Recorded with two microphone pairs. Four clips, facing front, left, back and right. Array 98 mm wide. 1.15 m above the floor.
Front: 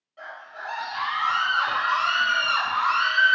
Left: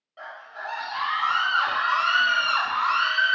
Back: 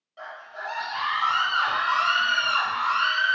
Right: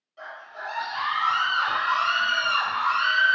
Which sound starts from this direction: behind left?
A scream, at 0.2 s.